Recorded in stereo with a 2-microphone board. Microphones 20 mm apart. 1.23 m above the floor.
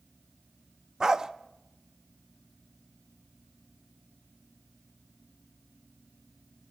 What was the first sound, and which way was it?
A dog barking, 35° right (ahead or behind).